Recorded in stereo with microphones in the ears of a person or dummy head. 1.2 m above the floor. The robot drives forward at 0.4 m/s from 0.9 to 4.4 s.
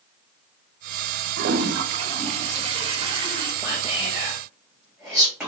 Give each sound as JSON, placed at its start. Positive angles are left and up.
{"t": 1.4, "sound": "a toilet flushing", "side_deg": -55, "distance_m": 0.7}
{"t": 3.6, "sound": "whispering", "side_deg": 0, "distance_m": 1.0}